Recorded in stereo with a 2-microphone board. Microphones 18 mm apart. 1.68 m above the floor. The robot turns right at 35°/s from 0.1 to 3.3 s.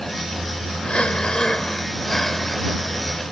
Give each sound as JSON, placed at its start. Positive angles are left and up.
{"t": 0.8, "sound": "breathing", "azimuth_deg": 120}